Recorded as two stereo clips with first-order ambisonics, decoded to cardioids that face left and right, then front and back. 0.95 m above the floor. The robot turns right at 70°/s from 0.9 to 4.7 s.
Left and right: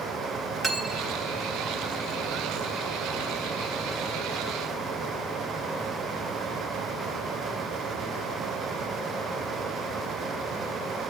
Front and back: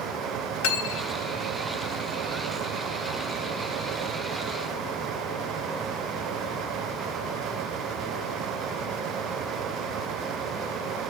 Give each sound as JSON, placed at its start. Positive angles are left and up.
{"t": 0.6, "sound": "cutlery clinking", "azimuth_deg": 0, "distance_m": 1.2}